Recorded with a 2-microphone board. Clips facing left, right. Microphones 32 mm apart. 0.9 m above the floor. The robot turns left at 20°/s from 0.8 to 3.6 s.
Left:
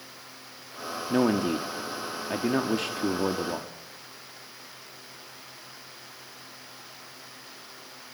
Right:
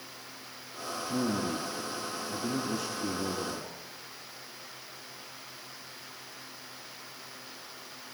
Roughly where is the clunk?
I don't hear a clunk.